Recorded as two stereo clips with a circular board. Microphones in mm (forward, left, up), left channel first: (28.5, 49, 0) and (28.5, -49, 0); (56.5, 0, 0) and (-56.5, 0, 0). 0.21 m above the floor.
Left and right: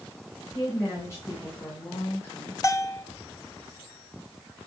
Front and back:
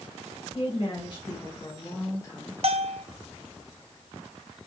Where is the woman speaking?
40° left, 2.5 m.